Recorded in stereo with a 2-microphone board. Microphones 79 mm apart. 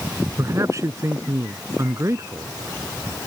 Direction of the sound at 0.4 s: 40° right (ahead or behind).